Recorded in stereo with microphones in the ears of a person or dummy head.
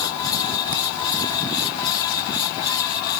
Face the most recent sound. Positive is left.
No sound to turn to.